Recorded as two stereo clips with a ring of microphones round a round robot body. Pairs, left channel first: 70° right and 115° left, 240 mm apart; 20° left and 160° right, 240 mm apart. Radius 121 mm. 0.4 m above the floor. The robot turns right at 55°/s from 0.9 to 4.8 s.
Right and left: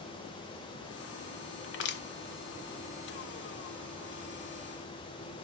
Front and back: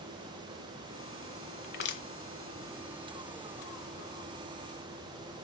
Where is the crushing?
35° right, 1.1 m; by 2.0 s 15° right, 1.1 m.